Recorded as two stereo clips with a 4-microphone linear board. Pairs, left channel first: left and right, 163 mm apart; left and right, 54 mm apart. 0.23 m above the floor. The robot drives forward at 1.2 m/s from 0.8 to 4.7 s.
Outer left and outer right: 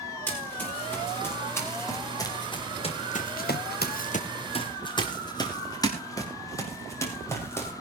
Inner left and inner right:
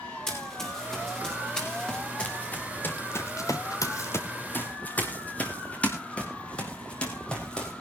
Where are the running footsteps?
10° left (ahead or behind), 6.5 m; by 7.7 s 15° left (ahead or behind), 5 m.